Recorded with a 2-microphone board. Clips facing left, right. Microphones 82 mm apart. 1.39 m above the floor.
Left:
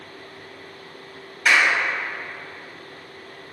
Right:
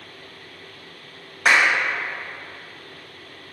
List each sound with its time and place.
1.4 s a clap: 30° right (ahead or behind), 1.0 m